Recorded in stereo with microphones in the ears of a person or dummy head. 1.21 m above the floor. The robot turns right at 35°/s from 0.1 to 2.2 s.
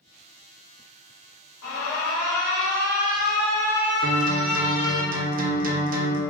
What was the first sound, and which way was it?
An alarm, 65° left (ahead or behind).